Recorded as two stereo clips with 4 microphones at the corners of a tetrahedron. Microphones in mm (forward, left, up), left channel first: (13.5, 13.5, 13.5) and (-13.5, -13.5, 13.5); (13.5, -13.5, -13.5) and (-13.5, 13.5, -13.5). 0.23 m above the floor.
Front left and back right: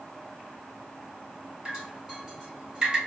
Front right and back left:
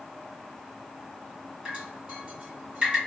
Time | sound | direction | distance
1.6 | dripping | 160° left | 1.7 m